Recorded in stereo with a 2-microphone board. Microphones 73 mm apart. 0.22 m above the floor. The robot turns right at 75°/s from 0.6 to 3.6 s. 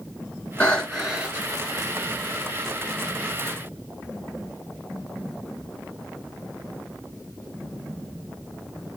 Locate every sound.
0.6 s breathing: 150° left, 2 m; by 1.5 s 140° right, 2 m